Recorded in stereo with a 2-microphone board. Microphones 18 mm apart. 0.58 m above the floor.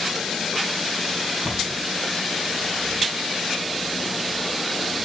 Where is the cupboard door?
80° right, 4 m.